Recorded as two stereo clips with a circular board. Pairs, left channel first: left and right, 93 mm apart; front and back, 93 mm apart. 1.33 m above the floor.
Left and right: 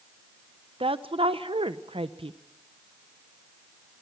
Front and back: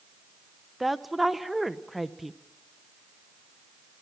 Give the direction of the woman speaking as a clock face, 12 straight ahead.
3 o'clock.